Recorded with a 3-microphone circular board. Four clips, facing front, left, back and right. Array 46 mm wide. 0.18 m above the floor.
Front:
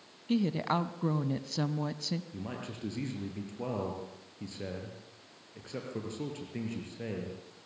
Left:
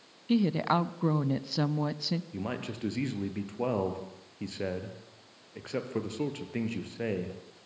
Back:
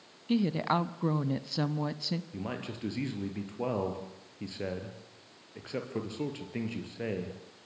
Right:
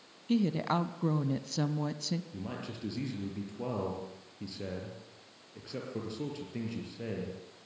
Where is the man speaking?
115° left, 4.5 m.